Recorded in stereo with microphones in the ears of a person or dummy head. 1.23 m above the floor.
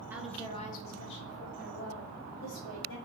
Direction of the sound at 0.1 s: 5° right (ahead or behind).